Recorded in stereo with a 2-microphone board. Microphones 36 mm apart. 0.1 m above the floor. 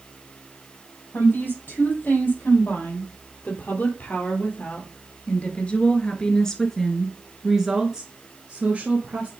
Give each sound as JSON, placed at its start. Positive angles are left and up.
{"t": 1.1, "sound": "a woman speaking", "side_deg": 70, "distance_m": 3.5}